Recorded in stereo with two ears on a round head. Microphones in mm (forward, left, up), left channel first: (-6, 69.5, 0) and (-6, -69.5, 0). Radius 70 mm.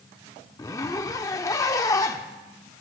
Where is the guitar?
I don't hear a guitar.